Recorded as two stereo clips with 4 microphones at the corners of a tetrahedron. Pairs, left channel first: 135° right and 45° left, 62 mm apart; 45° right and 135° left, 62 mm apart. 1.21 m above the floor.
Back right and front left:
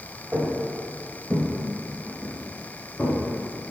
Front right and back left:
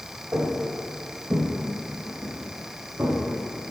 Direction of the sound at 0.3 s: 105° left.